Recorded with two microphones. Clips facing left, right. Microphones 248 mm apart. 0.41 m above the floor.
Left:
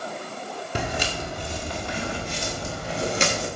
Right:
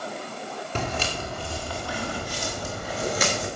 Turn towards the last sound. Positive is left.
turn(degrees=30)  # may be behind; listen again after turning